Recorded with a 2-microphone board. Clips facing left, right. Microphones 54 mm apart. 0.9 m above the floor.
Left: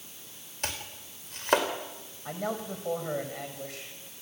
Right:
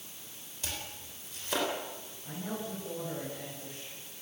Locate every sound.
0.6 s chopping: 55° left (ahead or behind), 3.5 m
2.2 s a man speaking: 75° left (ahead or behind), 5.5 m